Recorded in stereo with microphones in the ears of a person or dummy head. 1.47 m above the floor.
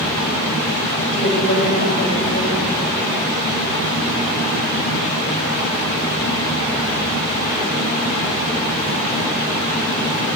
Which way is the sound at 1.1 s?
60° left (ahead or behind).